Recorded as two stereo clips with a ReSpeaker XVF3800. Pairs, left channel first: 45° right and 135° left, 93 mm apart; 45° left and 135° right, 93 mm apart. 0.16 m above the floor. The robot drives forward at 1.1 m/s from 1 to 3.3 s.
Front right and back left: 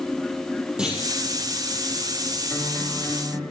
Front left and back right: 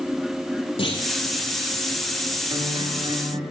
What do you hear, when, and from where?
0.8 s a clunk: 55° left, 5.5 m
2.5 s a guitar: 115° right, 7.5 m; by 3.4 s 125° right, 8 m